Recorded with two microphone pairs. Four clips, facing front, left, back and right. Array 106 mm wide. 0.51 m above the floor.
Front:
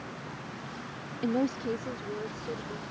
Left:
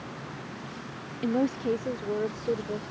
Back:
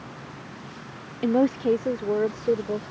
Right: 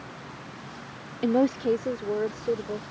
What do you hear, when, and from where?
1.2 s a woman speaking: 125° right; by 2.9 s 175° right